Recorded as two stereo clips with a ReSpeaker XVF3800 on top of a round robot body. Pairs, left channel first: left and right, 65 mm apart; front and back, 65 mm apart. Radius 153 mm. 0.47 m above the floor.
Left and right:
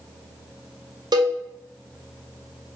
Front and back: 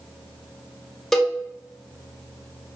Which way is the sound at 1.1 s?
85° right.